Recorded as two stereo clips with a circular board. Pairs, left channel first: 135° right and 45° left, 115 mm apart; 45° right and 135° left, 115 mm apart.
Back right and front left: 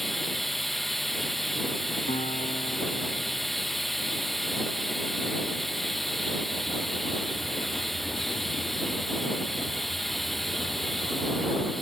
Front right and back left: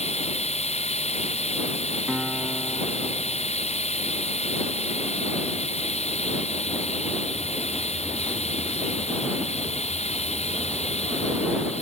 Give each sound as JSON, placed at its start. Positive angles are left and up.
{"t": 0.0, "sound": "running water", "azimuth_deg": -45}
{"t": 2.1, "sound": "a guitar", "azimuth_deg": -140}